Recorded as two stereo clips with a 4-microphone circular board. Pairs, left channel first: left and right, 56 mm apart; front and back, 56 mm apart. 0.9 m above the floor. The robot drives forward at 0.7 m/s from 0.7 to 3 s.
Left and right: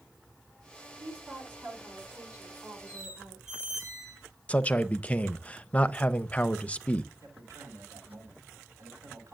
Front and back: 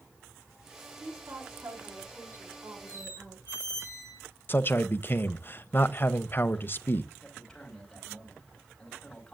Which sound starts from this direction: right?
A man speaking, at 7.2 s.